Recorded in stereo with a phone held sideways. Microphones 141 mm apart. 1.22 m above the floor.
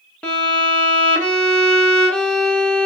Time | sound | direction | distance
0.2 | a violin | 5° left (ahead or behind) | 1.3 m